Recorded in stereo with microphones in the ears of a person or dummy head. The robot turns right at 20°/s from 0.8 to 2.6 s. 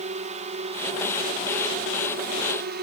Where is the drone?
30° right (ahead or behind); by 2.8 s 45° right (ahead or behind).